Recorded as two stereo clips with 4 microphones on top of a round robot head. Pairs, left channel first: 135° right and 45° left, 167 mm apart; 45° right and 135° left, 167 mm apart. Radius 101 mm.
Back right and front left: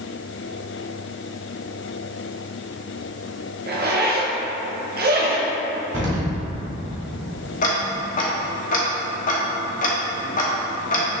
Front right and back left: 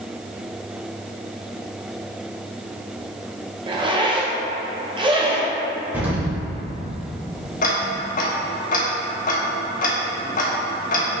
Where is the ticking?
90° right, 0.9 m.